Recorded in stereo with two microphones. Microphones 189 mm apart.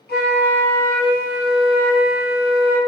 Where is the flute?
60° left (ahead or behind), 2.0 m.